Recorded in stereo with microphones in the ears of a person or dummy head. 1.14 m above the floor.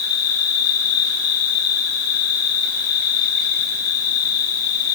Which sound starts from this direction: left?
An insect, at 0.0 s.